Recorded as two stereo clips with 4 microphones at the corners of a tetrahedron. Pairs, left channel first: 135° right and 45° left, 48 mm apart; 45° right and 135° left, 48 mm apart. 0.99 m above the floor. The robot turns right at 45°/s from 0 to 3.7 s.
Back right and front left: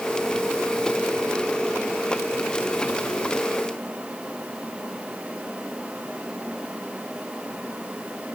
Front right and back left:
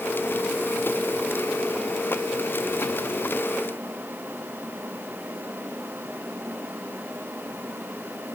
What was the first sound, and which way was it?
Only background noise.